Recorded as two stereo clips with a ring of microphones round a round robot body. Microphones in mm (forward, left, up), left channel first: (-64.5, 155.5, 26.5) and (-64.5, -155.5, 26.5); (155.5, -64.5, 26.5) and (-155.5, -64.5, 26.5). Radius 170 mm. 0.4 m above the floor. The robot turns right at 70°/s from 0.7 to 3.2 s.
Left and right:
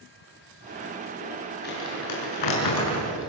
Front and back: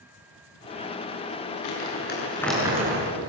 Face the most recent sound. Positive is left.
turn(degrees=135)